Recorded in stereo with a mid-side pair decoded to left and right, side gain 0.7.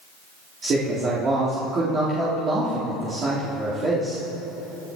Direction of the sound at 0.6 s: 40° right.